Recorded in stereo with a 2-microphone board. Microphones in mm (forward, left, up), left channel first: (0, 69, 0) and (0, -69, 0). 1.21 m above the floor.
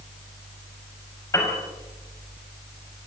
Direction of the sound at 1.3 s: 20° left (ahead or behind).